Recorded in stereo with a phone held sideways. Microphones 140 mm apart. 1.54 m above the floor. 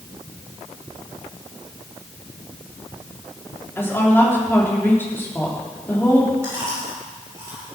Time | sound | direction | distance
3.8 | a woman speaking | 15° left (ahead or behind) | 3.5 m
6.4 | chewing | 20° right (ahead or behind) | 6.5 m